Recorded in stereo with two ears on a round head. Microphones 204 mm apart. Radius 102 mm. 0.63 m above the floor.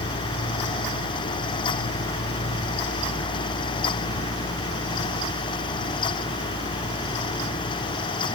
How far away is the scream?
No scream in this recording.